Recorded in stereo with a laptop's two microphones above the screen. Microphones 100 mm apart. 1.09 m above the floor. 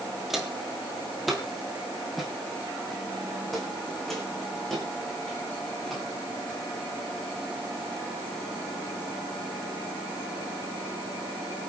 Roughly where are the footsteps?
Centre.